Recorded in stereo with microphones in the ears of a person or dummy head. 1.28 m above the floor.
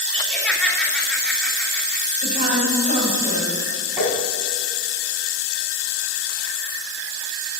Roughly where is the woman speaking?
Right.